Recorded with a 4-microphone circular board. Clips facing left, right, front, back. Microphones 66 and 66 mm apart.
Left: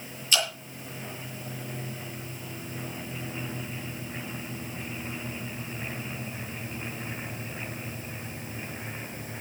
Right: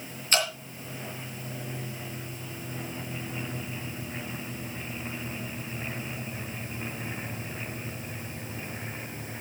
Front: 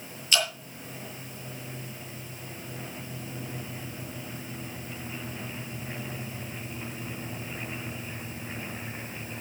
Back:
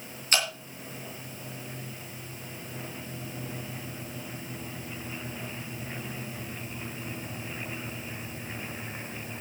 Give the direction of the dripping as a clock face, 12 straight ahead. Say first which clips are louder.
Right 1 dB, front 1 dB; 4 o'clock.